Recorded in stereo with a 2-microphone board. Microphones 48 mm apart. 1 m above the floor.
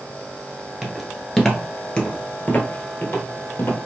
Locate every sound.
0.8 s footsteps: 10° right (ahead or behind), 1.0 m; by 3.8 s 50° left (ahead or behind), 1.6 m